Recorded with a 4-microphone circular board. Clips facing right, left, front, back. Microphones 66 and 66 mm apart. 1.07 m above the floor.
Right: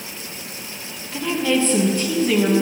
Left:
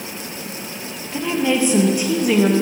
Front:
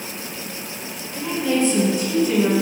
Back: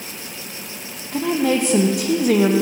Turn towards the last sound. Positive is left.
turn(degrees=165)